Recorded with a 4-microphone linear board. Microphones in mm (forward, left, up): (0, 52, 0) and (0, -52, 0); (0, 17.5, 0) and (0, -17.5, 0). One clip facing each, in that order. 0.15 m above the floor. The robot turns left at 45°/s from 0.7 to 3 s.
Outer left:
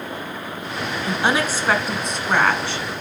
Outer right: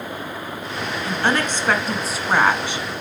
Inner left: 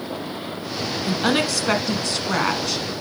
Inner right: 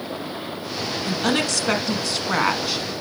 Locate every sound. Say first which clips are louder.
1.1 s a woman speaking: outer left 1 dB, inner left 2 dB; 15° left (ahead or behind), 1.1 m; by 2.9 s 20° right (ahead or behind), 1.1 m